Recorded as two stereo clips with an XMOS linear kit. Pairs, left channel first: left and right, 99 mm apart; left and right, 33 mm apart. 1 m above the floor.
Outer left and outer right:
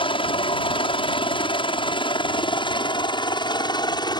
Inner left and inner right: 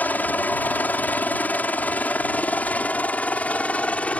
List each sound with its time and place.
0.0 s a helicopter: 60° left (ahead or behind); by 4.2 s 45° left (ahead or behind)